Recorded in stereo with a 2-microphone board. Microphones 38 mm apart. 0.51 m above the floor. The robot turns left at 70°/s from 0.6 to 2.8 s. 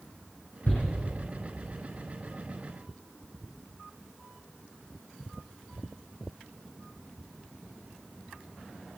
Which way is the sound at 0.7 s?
60° left (ahead or behind).